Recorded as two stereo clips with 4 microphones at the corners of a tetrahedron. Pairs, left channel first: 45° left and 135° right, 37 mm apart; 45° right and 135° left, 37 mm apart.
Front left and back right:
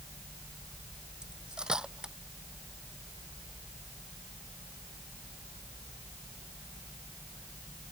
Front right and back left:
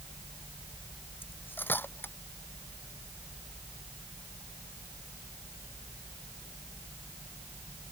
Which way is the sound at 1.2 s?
65° right.